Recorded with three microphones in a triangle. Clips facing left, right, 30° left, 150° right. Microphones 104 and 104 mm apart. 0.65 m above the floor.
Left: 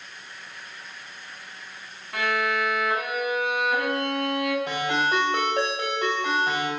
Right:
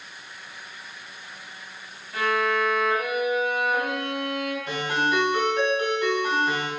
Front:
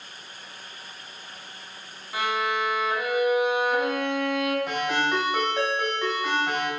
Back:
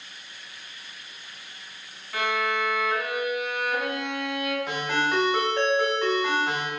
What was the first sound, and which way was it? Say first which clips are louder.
A violin: right 2 dB, even; 105° left.